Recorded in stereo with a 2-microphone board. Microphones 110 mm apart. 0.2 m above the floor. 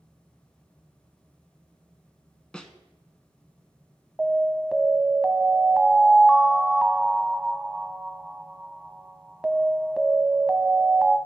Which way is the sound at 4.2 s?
10° right (ahead or behind).